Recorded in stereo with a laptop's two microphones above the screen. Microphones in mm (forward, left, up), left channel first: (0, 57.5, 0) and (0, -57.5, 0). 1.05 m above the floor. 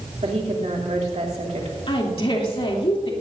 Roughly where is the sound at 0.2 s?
Right.